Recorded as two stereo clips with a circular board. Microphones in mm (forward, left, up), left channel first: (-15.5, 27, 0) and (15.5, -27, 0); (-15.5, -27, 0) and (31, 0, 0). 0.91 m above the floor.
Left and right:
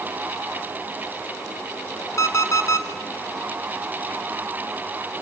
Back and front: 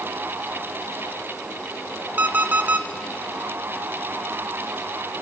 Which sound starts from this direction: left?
An alarm clock, at 2.2 s.